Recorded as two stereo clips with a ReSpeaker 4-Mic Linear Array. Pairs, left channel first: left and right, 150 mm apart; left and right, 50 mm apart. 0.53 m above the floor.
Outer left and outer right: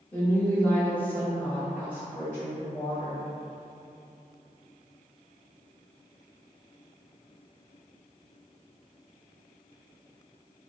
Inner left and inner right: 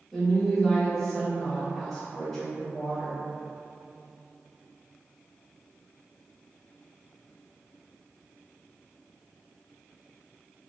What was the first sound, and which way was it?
A woman speaking, 10° left (ahead or behind).